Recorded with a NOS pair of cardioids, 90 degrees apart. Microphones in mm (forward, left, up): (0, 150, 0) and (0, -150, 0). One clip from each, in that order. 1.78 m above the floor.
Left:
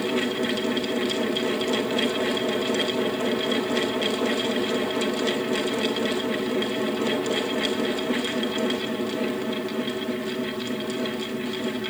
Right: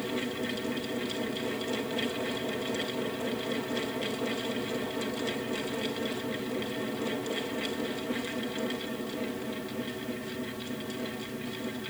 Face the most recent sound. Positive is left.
turn(degrees=55)